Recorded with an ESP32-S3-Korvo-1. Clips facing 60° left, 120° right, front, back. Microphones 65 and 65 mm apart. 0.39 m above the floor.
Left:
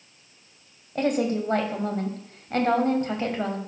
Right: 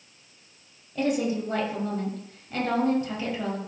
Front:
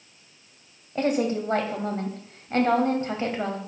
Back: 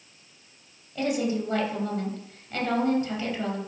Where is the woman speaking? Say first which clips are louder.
Left 2 dB, front 3 dB; 40° left, 2.5 m.